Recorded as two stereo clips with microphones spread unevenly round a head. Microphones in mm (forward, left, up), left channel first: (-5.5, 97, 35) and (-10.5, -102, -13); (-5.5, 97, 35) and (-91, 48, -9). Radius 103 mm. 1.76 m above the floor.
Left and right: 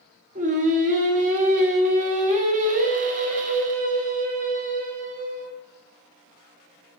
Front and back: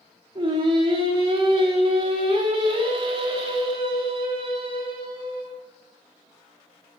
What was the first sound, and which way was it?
Singing, 105° right.